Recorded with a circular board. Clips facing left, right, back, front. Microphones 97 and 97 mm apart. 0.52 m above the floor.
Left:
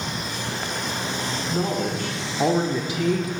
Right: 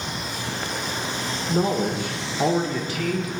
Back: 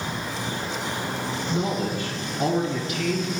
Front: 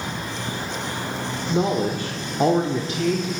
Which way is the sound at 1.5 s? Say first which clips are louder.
Right 4 dB, front 6 dB; 35° right.